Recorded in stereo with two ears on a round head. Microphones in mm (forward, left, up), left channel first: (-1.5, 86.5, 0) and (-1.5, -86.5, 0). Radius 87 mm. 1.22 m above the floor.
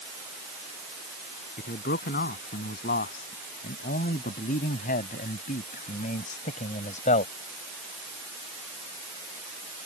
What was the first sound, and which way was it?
A man speaking, 50° left (ahead or behind).